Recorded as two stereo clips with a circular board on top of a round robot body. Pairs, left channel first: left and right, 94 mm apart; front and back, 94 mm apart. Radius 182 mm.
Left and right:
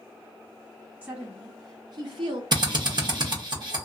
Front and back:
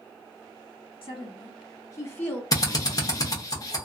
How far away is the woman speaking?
About 1.2 m.